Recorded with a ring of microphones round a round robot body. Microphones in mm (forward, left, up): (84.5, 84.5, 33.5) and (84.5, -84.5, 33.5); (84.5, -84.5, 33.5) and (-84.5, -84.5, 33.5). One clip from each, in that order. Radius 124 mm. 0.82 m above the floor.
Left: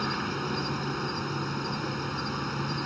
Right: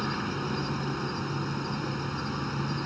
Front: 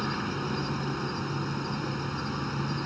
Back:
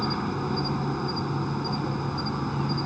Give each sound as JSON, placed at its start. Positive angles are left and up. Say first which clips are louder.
{"t": 0.0, "sound": "an insect", "louder": "left 1 dB, back 3 dB", "azimuth_deg": 50}